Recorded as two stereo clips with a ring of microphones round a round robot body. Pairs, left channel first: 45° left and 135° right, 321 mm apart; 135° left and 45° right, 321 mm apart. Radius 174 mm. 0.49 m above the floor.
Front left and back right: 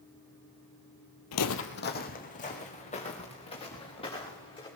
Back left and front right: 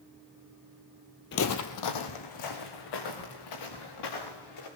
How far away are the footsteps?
About 0.8 m.